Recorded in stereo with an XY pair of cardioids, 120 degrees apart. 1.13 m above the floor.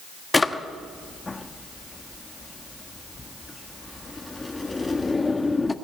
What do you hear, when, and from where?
0.3 s a drawer: 15° left, 1.1 m